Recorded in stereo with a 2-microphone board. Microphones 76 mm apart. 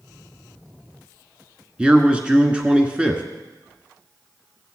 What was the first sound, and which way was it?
A man speaking, 15° right (ahead or behind).